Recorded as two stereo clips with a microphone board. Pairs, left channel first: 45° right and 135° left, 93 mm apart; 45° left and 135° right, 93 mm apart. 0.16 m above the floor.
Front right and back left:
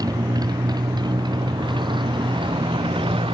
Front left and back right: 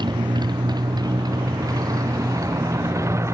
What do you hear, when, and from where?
0.0 s a motorcycle: 175° right; by 3.4 s 165° left